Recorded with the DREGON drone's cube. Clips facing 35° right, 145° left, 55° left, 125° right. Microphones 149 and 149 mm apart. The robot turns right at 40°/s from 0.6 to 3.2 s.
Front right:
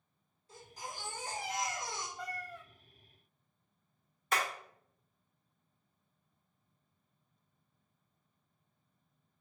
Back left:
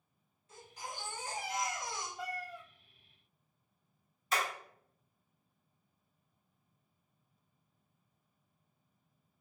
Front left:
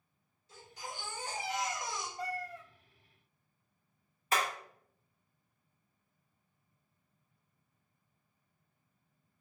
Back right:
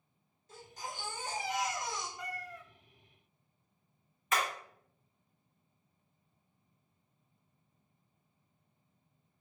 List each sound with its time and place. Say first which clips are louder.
0.5 s a baby crying: even, back right 1 dB; 90° right, 1.8 m; by 2.1 s 30° right, 1.8 m
2.2 s a cat meowing: back left 2 dB, front left 4 dB; 65° left, 0.5 m; by 2.6 s 85° left, 0.5 m
4.3 s hammering: front right 1 dB, front left 1 dB; straight ahead, 1.7 m